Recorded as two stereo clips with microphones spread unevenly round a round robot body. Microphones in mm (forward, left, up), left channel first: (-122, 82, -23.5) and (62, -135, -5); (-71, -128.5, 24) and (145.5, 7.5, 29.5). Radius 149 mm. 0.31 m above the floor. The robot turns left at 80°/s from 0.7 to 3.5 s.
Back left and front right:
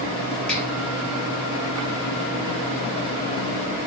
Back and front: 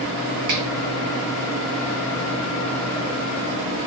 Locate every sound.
0.5 s a finger snap: 45° left, 6.5 m